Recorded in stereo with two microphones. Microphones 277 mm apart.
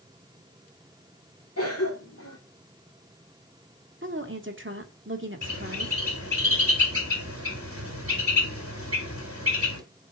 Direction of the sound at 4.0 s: 45° right (ahead or behind).